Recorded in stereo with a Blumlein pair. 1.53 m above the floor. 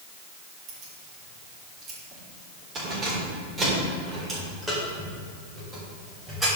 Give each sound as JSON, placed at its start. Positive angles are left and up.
{"t": 0.7, "sound": "keys jangling", "azimuth_deg": -35, "distance_m": 3.0}